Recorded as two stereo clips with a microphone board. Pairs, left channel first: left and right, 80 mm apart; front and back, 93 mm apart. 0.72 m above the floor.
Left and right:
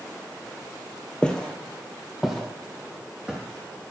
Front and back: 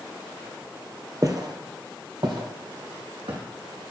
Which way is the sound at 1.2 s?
160° left.